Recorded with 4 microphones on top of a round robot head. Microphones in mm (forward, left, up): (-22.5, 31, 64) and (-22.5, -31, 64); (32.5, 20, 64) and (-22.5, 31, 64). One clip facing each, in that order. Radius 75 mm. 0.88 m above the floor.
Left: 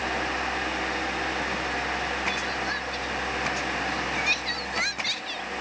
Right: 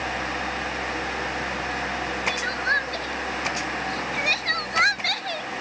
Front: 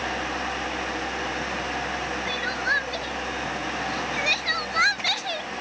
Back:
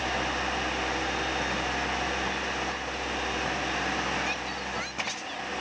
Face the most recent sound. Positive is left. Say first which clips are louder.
# right 4 dB, front 6 dB
turn(degrees=-40)